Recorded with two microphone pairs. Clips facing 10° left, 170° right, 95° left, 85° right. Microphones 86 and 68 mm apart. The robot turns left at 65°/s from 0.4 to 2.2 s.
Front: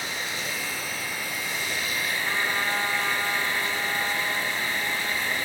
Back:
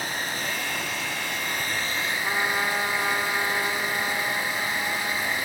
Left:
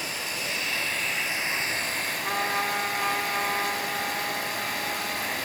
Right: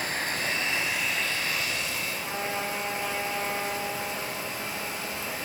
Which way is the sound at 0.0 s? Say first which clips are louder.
Back 2 dB, right 3 dB; 125° right.